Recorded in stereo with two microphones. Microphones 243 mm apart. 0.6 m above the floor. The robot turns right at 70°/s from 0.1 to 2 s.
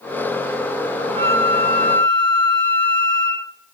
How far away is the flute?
About 1.8 m.